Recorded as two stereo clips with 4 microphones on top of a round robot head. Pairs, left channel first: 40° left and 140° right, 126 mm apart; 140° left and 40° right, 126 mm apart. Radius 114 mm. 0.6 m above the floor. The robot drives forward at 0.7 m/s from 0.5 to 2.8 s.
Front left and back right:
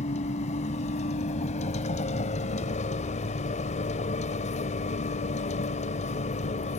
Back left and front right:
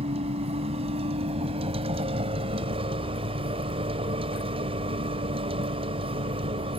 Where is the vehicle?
5° left.